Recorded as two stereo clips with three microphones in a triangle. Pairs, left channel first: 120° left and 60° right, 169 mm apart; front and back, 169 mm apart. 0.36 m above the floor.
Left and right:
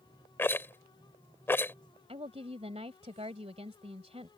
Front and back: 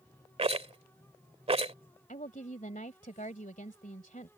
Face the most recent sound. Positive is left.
turn(degrees=-20)